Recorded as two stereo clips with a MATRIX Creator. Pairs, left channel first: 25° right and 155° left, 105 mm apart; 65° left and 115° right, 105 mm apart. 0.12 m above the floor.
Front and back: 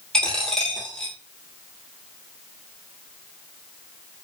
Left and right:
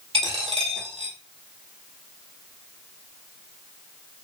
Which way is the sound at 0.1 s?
105° right.